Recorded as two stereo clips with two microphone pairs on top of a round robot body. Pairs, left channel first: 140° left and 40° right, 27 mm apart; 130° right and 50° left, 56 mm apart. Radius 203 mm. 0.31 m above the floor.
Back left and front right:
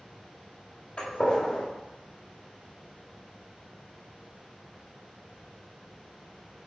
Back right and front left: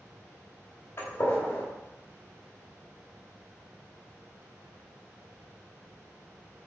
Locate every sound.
1.0 s a gunshot: 170° right, 2.5 m